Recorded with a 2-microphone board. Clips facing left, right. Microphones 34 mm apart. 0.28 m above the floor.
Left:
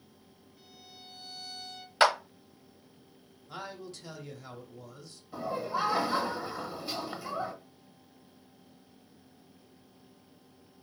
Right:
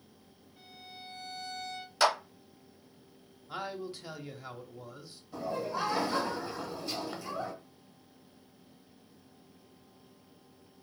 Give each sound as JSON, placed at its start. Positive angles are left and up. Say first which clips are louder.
{"t": 0.6, "sound": "a violin", "louder": "right 4 dB", "side_deg": -50, "distance_m": 2.5}
{"t": 2.0, "sound": "a clap", "louder": "left 3 dB", "side_deg": 35, "distance_m": 0.9}
{"t": 3.5, "sound": "a man speaking", "louder": "right 4 dB", "side_deg": -15, "distance_m": 0.9}
{"t": 5.3, "sound": "laughter", "louder": "left 2 dB", "side_deg": 25, "distance_m": 1.3}